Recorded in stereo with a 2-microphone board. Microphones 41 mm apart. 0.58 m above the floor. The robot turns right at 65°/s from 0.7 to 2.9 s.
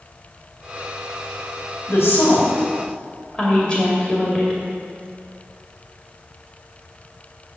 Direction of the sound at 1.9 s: 70° left (ahead or behind).